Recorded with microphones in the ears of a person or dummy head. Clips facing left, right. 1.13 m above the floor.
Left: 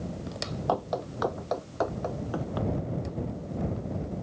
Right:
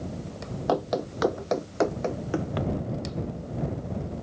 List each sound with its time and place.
0.7 s running footsteps: 30° right (ahead or behind); by 2.7 s 40° right (ahead or behind)